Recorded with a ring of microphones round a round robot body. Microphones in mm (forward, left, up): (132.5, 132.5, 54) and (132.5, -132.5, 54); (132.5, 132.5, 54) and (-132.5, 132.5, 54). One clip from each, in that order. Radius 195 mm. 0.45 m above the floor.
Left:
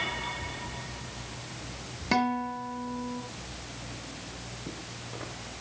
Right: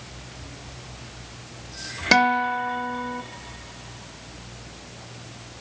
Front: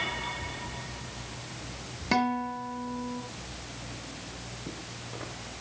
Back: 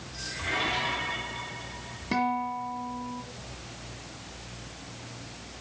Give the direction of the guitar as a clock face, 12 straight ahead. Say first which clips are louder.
Right 10 dB, even; 3 o'clock.